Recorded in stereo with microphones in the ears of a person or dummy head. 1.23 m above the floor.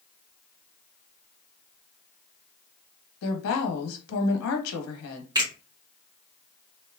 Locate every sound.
3.2 s a woman speaking: 80° left, 1.2 m
5.3 s a finger snap: 20° right (ahead or behind), 1.4 m